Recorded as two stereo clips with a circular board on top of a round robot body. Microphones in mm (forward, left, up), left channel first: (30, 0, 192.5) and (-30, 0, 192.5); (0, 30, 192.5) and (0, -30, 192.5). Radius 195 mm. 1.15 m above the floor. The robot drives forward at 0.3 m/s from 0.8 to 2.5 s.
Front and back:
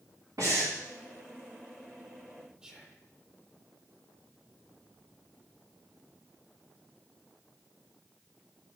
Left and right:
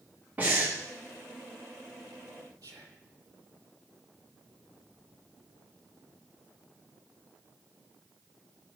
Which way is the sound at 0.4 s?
155° right.